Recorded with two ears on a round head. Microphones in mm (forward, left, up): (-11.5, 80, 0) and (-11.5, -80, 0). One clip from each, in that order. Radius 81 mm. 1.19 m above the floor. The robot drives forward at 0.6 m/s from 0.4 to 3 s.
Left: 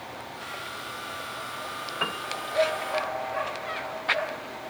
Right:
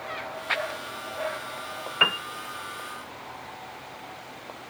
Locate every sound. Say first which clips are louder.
2.0 s a piano: right 9 dB; 65° right (ahead or behind); by 2.2 s 60° right (ahead or behind)